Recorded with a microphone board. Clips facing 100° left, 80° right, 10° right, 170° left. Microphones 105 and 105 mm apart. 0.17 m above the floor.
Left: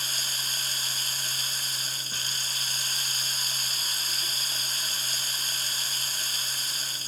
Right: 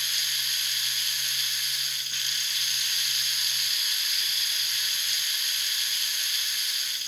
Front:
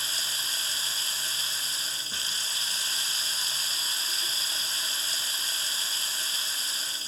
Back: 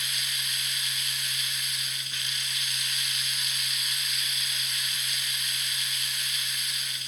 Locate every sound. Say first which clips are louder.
0.0 s running water: left 1 dB, even; 50° left